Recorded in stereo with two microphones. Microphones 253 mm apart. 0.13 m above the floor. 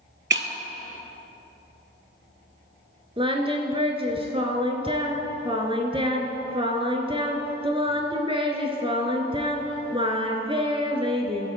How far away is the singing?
About 1.1 m.